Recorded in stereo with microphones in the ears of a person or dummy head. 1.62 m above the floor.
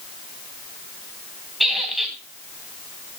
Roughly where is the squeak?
Centre.